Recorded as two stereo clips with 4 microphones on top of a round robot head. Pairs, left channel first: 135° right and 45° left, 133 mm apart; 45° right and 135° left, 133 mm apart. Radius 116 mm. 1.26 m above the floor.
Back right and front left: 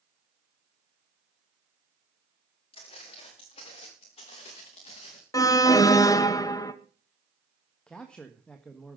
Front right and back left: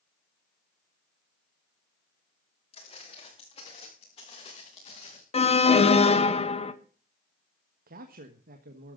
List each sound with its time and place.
2.7 s footsteps: 85° right, 6.5 m; by 5.2 s 90° right, 5 m
5.3 s an alarm: 75° right, 1.4 m
7.9 s a man speaking: 140° left, 1.4 m